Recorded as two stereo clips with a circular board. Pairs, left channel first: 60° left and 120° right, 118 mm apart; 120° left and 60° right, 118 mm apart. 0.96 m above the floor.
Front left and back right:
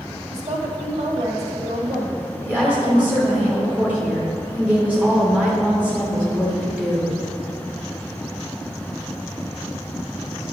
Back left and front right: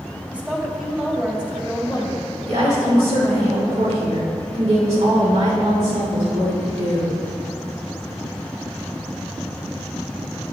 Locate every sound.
0.3 s a woman speaking: 140° right, 1.6 m
2.5 s a woman speaking: 45° right, 2.5 m